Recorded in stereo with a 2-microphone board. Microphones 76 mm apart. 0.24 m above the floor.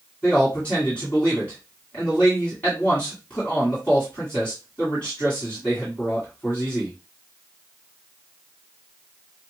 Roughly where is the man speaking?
Centre.